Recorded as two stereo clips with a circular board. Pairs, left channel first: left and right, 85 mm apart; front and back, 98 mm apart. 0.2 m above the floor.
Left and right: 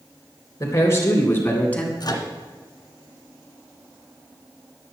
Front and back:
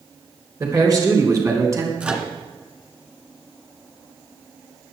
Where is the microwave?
110° left, 2 m.